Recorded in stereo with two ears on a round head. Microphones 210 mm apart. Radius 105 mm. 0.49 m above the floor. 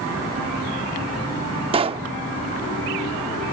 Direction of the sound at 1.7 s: 25° right (ahead or behind).